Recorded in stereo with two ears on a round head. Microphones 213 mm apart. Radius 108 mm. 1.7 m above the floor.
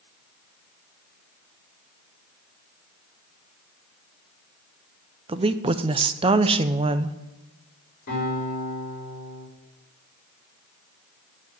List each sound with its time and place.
5.3 s a woman speaking: 25° right (ahead or behind), 0.6 m
8.1 s a guitar: 40° left (ahead or behind), 5 m